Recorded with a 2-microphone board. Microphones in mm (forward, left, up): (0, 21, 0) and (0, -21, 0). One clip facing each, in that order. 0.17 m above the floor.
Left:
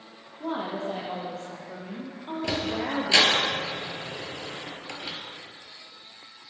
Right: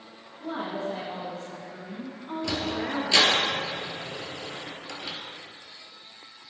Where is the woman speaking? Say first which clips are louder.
Left 1 dB; 60° left (ahead or behind), 5 m; by 3.4 s 70° left (ahead or behind), 3.5 m.